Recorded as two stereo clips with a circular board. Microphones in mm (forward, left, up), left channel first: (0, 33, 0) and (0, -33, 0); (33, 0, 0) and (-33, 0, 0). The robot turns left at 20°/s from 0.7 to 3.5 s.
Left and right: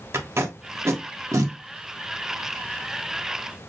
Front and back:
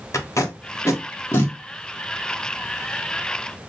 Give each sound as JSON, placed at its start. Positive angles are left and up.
{"t": 0.1, "sound": "tape being pulled", "azimuth_deg": -40, "distance_m": 1.3}